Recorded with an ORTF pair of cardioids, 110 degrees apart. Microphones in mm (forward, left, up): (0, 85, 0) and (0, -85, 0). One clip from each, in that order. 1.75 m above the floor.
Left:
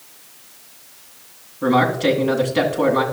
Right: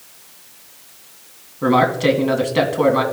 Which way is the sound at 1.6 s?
10° right.